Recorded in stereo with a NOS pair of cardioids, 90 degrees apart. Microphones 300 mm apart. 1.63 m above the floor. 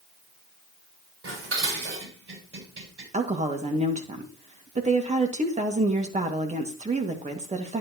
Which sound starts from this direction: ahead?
A woman speaking, at 3.1 s.